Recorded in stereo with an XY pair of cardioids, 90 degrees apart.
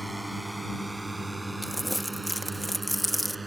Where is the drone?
5° right; by 3.5 s 20° right.